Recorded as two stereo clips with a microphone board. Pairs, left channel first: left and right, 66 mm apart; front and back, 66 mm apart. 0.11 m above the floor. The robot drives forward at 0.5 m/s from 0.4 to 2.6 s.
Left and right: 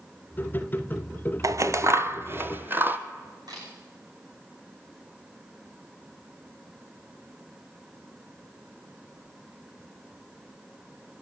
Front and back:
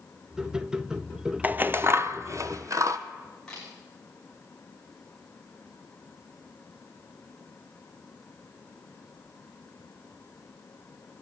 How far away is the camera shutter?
About 8.5 m.